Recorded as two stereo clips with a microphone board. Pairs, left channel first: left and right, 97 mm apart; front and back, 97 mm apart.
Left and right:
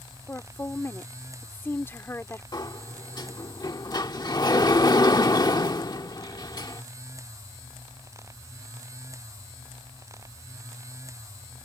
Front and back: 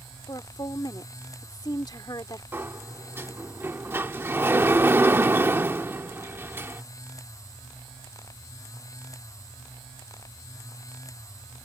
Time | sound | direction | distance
0.3 | a woman speaking | 30° left | ?
2.5 | a sliding door | 120° left | ?